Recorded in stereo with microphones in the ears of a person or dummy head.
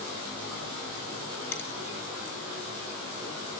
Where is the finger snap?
10° left (ahead or behind), 1.9 m.